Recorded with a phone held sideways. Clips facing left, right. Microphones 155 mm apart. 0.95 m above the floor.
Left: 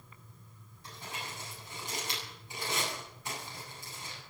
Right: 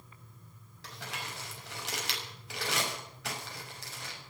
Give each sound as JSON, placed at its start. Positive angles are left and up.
{"t": 0.8, "sound": "crumpling", "side_deg": -75, "distance_m": 6.0}